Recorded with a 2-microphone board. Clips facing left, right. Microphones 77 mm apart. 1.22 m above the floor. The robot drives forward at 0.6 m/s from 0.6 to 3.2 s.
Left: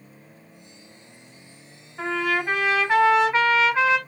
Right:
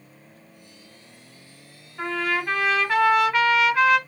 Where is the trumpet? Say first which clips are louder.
Left 1 dB; 10° left (ahead or behind), 1.7 m; by 4.0 s 20° left (ahead or behind), 1.0 m.